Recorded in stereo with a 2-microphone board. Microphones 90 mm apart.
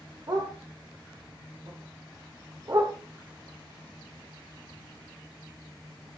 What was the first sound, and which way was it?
A dog barking, 40° right (ahead or behind).